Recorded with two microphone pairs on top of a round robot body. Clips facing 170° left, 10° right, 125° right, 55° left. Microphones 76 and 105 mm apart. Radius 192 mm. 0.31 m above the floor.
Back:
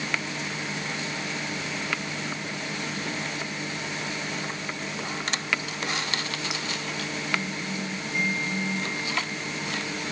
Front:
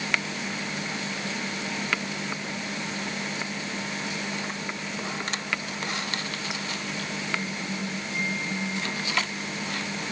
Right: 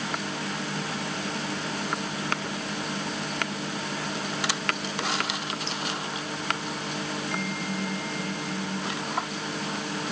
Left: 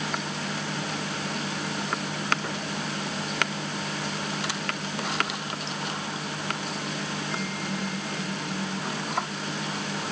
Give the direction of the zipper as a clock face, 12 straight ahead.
No zipper in this recording.